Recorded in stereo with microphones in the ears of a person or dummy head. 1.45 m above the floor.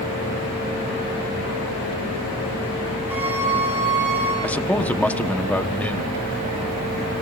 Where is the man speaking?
5° left (ahead or behind), 1.0 m.